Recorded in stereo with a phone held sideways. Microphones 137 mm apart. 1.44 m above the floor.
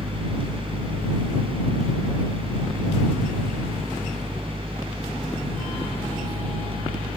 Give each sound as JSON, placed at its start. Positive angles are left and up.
{"t": 0.0, "sound": "a fan", "side_deg": -40}